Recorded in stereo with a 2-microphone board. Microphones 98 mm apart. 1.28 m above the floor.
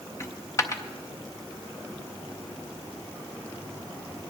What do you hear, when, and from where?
0.2 s a dropped coin: 30° left (ahead or behind), 0.7 m